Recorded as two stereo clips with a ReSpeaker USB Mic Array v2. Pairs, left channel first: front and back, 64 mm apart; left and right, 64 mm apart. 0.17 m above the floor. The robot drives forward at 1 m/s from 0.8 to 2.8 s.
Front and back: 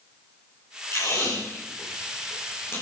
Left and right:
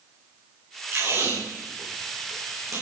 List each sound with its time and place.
0.9 s tape being pulled: 40° right, 8 m; by 2.8 s 50° right, 6.5 m